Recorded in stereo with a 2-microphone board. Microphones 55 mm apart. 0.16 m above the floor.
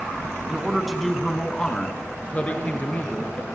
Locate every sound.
0.5 s a man speaking: 15° right (ahead or behind), 1.7 m; by 3.5 s 30° left (ahead or behind), 4 m